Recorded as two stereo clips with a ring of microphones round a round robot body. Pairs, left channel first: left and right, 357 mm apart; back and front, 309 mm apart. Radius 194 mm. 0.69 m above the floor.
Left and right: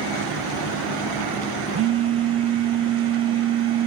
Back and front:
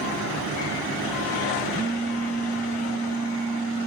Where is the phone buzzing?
60° right, 0.6 m.